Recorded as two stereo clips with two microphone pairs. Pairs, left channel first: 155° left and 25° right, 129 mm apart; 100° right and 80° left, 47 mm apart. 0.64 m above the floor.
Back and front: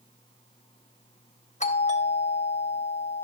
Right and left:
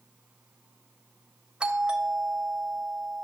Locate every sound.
1.6 s a doorbell: 150° left, 3.5 m